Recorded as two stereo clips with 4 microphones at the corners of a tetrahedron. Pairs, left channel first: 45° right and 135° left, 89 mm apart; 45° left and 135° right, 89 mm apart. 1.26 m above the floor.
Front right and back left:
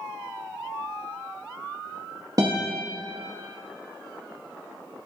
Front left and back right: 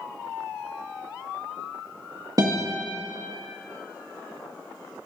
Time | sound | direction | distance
2.4 | a guitar | straight behind | 2.0 m